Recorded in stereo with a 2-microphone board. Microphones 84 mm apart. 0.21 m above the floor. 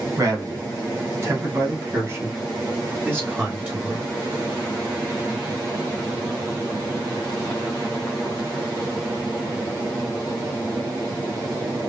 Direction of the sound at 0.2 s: 40° right (ahead or behind).